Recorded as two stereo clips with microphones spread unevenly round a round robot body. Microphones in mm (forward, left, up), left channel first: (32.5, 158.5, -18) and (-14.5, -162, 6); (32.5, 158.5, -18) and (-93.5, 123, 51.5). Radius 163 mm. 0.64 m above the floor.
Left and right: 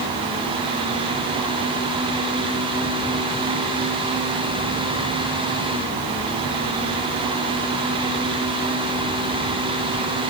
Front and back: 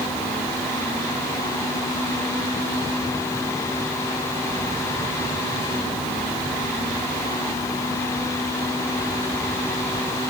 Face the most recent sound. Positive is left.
No sound to turn to.